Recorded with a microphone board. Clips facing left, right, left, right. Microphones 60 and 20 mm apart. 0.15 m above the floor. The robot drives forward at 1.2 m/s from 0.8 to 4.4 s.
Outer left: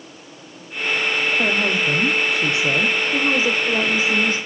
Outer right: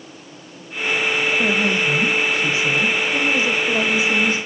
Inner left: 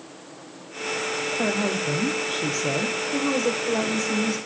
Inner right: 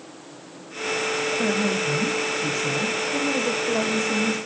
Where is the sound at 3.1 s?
45° left (ahead or behind), 9 m; by 4.4 s 50° left (ahead or behind), 8 m.